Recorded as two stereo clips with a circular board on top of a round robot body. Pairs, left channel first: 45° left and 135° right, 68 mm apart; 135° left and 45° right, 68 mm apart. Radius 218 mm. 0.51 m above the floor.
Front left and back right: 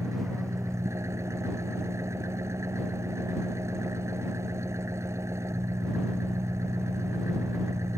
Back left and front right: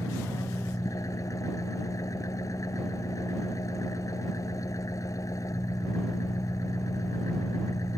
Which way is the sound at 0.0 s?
175° left.